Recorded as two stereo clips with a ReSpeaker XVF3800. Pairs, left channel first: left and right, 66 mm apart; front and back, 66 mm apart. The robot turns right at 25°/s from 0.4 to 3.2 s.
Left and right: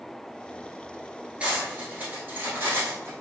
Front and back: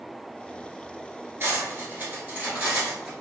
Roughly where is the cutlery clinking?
Behind right.